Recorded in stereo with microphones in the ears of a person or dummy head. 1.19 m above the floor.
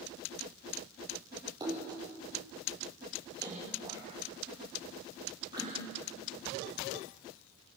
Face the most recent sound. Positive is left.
turn(degrees=-20)  # may be behind; listen again after turning